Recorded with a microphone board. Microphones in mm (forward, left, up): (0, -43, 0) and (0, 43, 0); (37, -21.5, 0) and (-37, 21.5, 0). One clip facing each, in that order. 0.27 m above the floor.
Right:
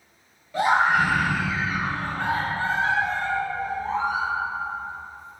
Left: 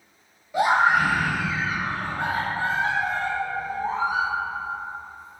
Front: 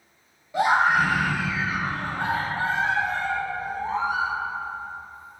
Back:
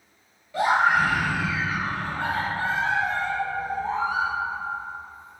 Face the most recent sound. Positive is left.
turn(degrees=25)